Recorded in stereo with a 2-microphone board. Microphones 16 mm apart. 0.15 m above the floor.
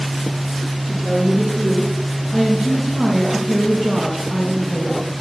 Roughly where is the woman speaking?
Centre.